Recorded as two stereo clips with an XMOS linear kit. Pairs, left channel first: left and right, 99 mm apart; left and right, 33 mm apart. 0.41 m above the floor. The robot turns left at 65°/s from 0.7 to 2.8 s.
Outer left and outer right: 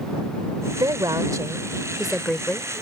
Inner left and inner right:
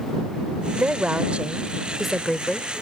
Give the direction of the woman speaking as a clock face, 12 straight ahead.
3 o'clock.